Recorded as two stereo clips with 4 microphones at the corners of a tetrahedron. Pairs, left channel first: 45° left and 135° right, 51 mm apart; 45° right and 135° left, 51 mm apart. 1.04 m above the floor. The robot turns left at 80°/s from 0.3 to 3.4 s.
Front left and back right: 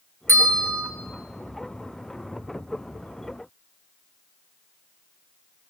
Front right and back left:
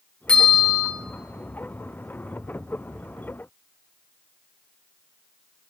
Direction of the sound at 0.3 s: 110° right.